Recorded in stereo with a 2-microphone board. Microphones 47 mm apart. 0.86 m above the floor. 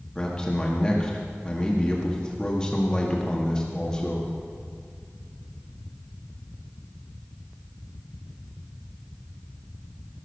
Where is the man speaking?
15° left (ahead or behind), 1.8 m.